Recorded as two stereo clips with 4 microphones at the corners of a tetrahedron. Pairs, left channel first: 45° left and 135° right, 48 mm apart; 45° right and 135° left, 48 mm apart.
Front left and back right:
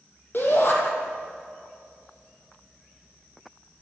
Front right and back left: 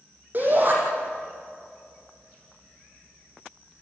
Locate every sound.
0.3 s a shout: 85° left, 6.5 m